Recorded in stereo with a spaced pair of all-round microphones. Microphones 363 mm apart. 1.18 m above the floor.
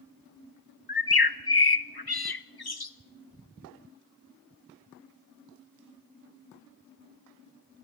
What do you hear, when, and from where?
0.9 s a bird: 85° left, 1.1 m